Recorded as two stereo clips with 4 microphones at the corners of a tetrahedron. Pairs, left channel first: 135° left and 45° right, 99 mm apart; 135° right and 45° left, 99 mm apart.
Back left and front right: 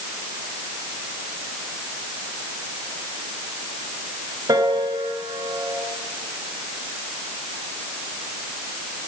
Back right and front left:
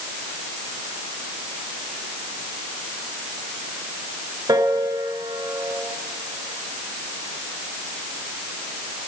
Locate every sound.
4.5 s a piano: 5° right, 4 m